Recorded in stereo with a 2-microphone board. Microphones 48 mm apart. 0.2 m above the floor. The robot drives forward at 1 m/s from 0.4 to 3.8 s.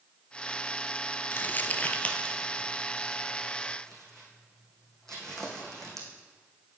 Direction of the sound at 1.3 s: 55° left (ahead or behind).